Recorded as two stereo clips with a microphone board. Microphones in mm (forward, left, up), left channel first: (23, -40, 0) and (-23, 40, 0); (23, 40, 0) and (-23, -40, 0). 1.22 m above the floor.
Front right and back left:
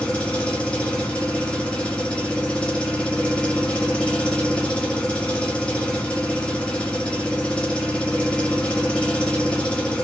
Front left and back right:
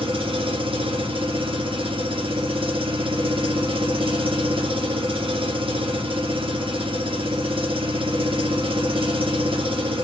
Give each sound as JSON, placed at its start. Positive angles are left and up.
{"t": 0.0, "sound": "an engine running", "azimuth_deg": -135, "distance_m": 0.9}